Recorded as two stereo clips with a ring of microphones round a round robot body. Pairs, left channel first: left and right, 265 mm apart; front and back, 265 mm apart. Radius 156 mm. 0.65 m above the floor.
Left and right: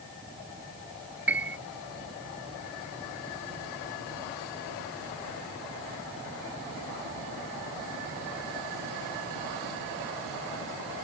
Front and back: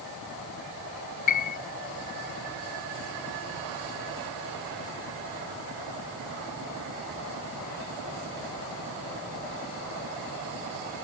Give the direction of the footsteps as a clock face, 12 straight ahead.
I don't hear footsteps.